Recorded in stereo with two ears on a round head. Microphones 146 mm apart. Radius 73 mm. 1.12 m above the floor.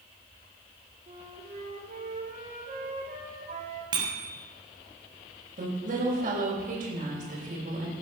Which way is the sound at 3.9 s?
30° right (ahead or behind).